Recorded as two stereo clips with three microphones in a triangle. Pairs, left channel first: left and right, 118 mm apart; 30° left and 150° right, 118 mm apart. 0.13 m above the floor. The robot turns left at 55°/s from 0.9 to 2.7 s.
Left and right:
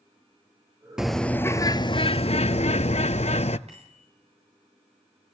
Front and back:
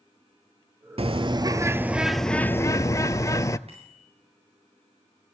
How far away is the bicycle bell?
About 9.5 m.